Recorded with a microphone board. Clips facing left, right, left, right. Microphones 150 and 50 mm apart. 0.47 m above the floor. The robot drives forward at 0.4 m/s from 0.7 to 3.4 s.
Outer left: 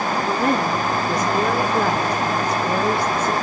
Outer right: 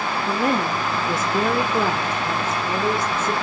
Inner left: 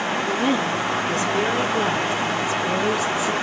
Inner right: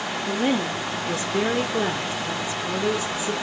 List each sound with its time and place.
0.3 s a woman speaking: 5° right (ahead or behind), 0.8 m